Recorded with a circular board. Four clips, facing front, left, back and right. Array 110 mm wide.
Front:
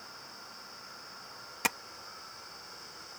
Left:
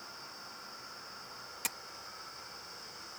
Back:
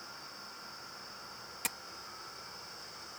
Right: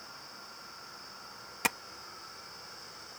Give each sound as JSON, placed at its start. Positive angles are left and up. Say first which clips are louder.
{"t": 1.6, "sound": "tapping", "louder": "right 12 dB, front 10 dB", "azimuth_deg": -50}